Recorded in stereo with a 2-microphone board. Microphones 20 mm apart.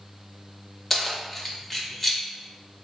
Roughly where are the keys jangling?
Centre.